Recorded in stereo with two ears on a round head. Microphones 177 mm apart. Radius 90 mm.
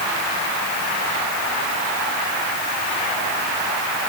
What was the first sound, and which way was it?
Only background noise.